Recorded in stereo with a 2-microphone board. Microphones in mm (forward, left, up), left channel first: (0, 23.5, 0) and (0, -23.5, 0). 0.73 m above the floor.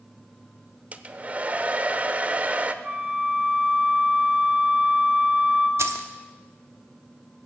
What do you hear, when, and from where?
0.9 s a hair dryer: 30° right (ahead or behind), 0.6 m
2.8 s a flute: 30° right (ahead or behind), 1.9 m
5.8 s keys jangling: 70° right (ahead or behind), 0.9 m